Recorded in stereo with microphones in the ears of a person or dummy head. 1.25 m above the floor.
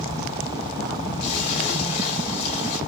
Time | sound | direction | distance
1.2 | a splash | 40° left (ahead or behind) | 2.0 m